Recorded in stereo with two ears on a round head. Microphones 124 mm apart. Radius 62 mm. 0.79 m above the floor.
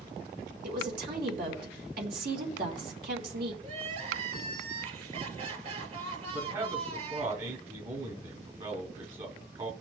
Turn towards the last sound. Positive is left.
turn(degrees=-40)  # may be behind; listen again after turning